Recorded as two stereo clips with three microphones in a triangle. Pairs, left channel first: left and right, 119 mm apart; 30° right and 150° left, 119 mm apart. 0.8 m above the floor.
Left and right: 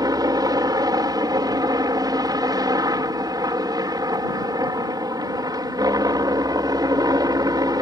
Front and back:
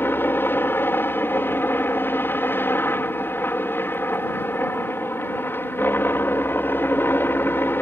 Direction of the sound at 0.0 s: 85° right.